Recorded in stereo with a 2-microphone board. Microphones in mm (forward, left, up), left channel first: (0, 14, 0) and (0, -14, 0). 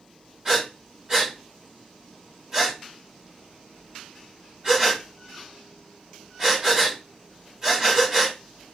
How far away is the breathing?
About 1.6 m.